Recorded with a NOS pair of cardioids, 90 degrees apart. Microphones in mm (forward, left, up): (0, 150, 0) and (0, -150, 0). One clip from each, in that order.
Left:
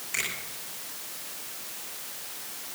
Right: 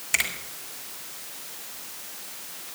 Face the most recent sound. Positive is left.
turn(degrees=-70)